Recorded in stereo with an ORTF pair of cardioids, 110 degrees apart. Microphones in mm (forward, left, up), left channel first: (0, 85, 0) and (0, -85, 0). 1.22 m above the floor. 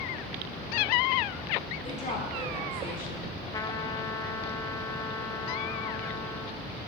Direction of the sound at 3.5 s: 20° left.